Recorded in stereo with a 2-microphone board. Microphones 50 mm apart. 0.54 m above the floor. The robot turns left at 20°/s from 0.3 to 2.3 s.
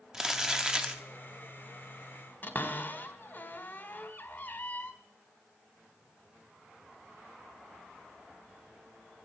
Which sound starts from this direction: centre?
Crumpling, at 0.1 s.